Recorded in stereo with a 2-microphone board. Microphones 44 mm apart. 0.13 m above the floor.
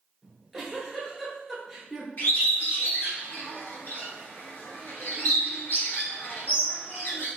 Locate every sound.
0.2 s a giggle: 5° left (ahead or behind), 1.4 m
2.2 s a bird: 50° left (ahead or behind), 1.2 m